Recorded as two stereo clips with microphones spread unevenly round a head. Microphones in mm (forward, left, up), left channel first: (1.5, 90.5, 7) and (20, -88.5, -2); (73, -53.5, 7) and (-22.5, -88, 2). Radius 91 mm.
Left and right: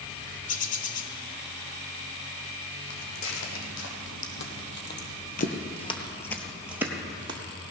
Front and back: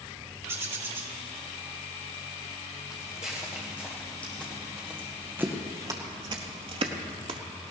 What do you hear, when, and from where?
0.5 s a bird: 135° left, 0.9 m
2.9 s footsteps: 90° left, 3 m; by 7.4 s 145° right, 1.5 m